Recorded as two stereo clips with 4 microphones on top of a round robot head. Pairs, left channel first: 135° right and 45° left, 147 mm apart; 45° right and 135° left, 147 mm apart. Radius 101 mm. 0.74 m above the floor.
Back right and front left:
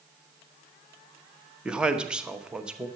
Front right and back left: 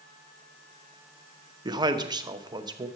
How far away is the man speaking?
About 0.9 m.